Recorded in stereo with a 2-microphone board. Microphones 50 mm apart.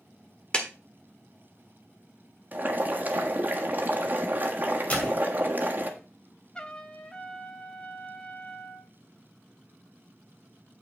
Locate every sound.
0.5 s a clap: 20° left (ahead or behind), 1.4 m
2.5 s boiling: 35° right (ahead or behind), 1.4 m
4.9 s a door slam: 25° left (ahead or behind), 2.5 m
6.5 s a trumpet: 20° left (ahead or behind), 0.9 m